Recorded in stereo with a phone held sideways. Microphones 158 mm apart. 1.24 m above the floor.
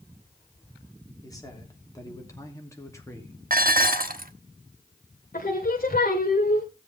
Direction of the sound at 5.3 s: 65° left (ahead or behind).